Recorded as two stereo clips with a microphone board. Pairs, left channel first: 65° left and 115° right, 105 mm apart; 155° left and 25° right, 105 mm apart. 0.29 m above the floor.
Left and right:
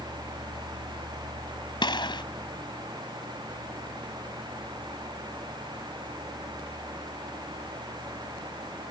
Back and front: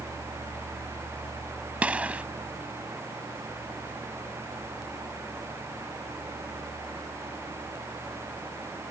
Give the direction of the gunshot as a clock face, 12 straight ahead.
10 o'clock.